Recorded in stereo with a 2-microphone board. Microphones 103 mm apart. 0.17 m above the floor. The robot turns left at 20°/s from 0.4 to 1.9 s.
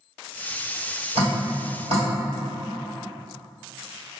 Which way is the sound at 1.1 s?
70° right (ahead or behind).